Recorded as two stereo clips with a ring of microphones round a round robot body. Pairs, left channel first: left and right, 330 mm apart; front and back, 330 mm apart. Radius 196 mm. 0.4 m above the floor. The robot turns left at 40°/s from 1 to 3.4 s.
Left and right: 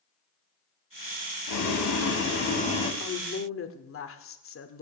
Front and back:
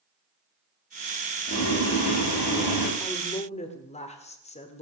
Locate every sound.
1.5 s boiling: 70° left, 3 m; by 2.9 s 15° left, 3 m
3.0 s a woman speaking: 80° left, 1.4 m; by 4.8 s 65° left, 1.4 m